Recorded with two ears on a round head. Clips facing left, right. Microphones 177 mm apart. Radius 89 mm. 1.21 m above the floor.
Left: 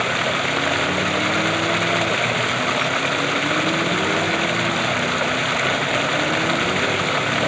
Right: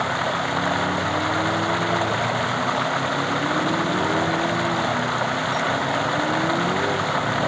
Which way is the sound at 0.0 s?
30° left (ahead or behind).